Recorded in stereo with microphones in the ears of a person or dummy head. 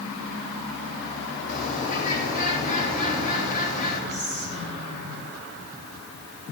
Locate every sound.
1.5 s a bird: 50° left (ahead or behind), 3.5 m
4.1 s whispering: 40° left (ahead or behind), 4.5 m